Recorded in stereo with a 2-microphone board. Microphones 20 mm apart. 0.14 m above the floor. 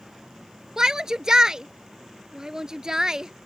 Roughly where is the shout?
Right.